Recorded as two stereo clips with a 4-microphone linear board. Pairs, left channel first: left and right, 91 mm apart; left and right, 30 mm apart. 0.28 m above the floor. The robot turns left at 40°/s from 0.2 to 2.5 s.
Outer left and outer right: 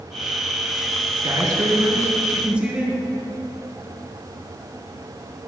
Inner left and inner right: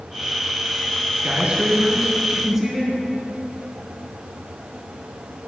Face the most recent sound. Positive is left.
turn(degrees=-165)